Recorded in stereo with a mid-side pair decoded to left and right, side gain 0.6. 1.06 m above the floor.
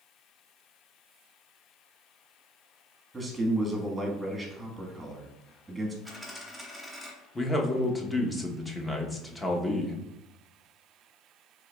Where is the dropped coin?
10° left, 1.1 m.